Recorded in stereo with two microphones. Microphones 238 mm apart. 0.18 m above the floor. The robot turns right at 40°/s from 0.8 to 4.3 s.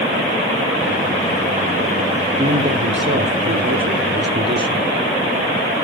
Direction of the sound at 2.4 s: 135° right.